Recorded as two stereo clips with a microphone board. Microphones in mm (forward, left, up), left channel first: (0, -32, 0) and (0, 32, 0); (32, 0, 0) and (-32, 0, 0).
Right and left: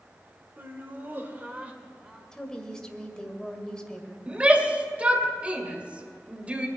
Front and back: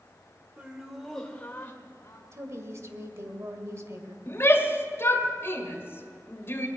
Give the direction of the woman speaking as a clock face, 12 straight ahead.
6 o'clock.